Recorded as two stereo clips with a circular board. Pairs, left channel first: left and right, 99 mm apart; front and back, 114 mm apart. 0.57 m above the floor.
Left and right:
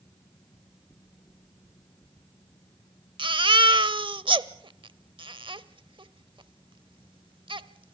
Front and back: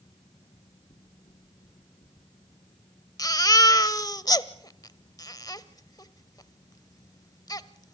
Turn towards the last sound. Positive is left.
turn(degrees=-55)